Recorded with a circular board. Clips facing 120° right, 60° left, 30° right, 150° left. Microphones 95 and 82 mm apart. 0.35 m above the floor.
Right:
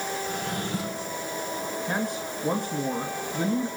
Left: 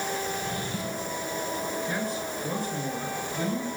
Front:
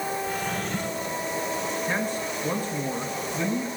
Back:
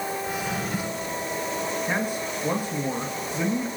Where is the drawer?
130° right, 3 m.